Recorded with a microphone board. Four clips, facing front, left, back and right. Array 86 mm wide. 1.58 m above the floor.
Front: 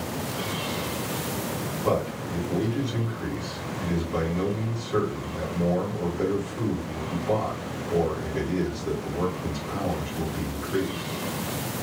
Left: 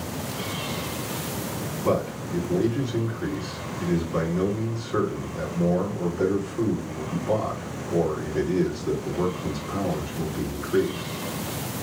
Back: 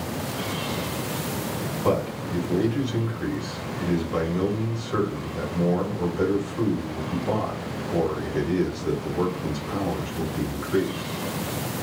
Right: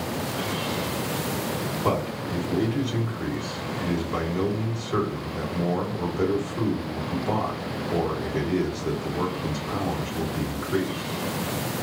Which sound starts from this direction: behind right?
A man speaking, at 1.8 s.